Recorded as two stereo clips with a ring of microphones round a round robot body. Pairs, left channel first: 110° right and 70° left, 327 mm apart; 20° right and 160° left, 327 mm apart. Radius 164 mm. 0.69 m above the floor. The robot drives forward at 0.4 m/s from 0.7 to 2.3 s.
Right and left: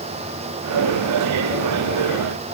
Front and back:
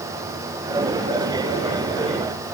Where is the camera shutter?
I don't hear a camera shutter.